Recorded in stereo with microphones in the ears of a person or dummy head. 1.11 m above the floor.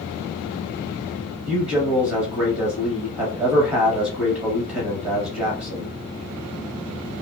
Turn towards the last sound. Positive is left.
turn(degrees=-35)  # may be behind; listen again after turning